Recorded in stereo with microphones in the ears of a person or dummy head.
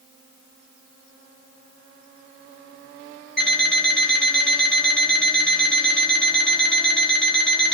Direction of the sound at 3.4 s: 5° left (ahead or behind).